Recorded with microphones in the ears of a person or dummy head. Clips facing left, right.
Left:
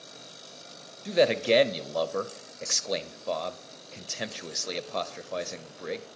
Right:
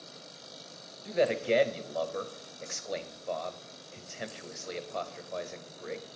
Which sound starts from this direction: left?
A man speaking, at 1.1 s.